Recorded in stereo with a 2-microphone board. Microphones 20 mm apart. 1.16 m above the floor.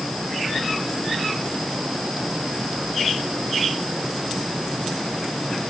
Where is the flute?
I don't hear a flute.